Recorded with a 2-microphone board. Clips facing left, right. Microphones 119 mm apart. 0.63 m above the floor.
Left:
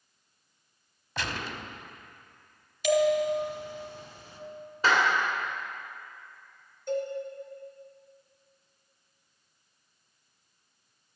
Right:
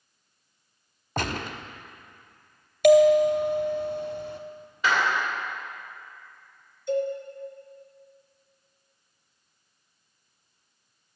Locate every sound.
1.2 s a gunshot: 45° right (ahead or behind), 0.6 m
2.8 s a bell: 60° right (ahead or behind), 0.8 m
4.8 s a clap: 35° left (ahead or behind), 2.5 m
6.9 s a cowbell: 50° left (ahead or behind), 1.4 m